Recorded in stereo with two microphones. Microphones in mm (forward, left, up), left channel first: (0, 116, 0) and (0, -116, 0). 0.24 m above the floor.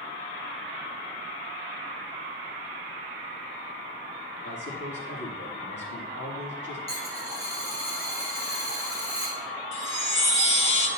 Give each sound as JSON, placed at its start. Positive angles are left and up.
{"t": 4.4, "sound": "a man speaking", "side_deg": 50, "distance_m": 6.0}
{"t": 6.9, "sound": "a dropped coin", "side_deg": 25, "distance_m": 4.5}
{"t": 9.7, "sound": "a chime", "side_deg": 60, "distance_m": 1.8}